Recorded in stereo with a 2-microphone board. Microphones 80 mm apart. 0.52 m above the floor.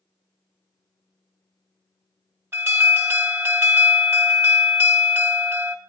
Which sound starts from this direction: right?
An alarm, at 2.5 s.